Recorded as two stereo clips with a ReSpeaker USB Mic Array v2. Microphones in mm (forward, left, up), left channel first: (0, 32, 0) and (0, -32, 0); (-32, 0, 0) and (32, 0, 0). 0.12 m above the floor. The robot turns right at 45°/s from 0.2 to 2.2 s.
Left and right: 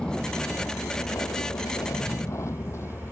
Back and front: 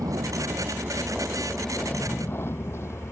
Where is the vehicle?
15° left; by 3.1 s 140° left.